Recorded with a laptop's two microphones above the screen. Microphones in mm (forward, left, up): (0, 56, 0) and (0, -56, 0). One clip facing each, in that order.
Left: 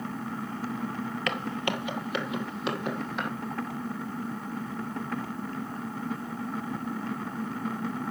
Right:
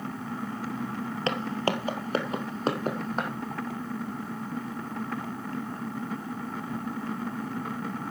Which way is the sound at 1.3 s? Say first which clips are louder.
Right 4 dB; 30° right (ahead or behind).